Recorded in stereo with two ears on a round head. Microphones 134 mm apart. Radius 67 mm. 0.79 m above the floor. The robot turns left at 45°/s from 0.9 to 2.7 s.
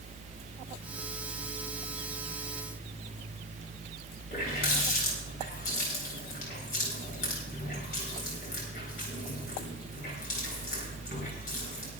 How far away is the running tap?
About 8.5 m.